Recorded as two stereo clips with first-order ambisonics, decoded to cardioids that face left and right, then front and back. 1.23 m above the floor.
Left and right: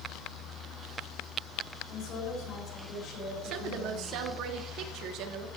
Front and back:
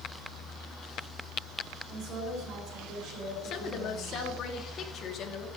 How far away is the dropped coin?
I don't hear a dropped coin.